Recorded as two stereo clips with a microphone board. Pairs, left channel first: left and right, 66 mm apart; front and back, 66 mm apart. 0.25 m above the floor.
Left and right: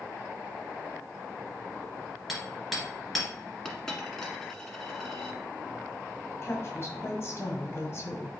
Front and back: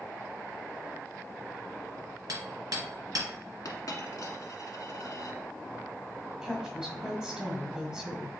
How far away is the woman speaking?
About 1.7 m.